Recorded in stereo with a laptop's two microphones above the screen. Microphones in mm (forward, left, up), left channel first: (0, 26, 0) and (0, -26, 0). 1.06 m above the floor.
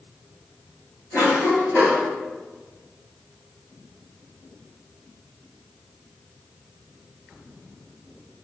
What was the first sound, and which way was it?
A cough, 65° left (ahead or behind).